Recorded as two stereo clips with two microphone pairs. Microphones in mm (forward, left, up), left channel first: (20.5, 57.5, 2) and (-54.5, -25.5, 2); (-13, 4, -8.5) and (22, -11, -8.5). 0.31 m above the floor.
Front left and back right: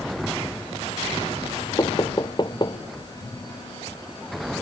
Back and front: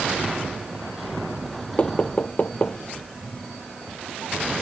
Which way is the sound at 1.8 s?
100° left.